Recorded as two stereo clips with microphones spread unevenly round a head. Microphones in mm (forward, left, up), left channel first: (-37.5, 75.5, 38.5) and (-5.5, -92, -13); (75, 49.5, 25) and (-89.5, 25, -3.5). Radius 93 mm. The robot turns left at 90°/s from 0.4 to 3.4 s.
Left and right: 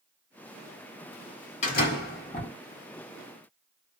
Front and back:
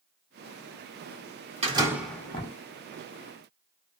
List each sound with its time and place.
1.6 s a door slam: 135° left, 1.1 m; by 2.5 s 55° left, 1.1 m